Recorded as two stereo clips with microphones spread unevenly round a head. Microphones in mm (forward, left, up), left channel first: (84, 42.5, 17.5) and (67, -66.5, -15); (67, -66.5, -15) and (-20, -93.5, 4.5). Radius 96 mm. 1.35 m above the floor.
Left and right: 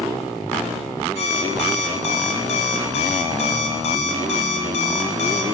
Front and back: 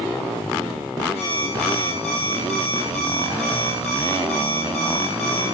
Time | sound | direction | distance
1.1 | an alarm clock | 60° left | 6 m